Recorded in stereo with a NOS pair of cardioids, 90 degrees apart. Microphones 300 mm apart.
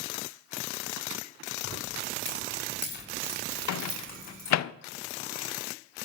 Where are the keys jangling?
45° left, 5 m; by 4.6 s 25° left, 5.5 m.